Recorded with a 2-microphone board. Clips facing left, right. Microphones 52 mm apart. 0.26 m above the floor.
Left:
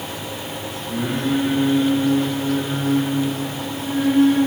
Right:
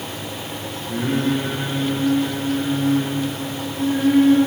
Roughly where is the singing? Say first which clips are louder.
Right 1 dB; right.